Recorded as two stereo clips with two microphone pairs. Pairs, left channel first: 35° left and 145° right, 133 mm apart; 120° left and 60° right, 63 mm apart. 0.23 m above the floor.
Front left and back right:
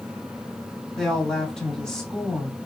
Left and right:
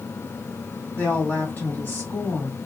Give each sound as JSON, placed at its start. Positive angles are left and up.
{"t": 0.9, "sound": "a woman speaking", "azimuth_deg": 115, "distance_m": 1.5}